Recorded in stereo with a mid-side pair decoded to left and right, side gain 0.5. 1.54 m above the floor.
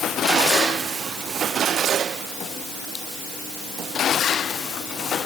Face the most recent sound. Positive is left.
No sound to turn to.